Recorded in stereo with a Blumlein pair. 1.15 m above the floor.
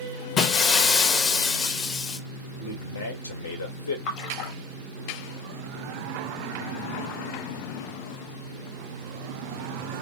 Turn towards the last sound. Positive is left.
turn(degrees=40)